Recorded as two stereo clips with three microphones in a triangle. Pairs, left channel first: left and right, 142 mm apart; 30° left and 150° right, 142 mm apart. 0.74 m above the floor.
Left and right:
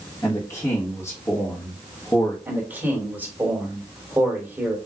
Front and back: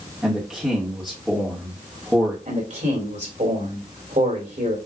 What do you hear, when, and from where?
0.2 s a man speaking: 130° left, 1.1 m
2.5 s a man speaking: 170° right, 3 m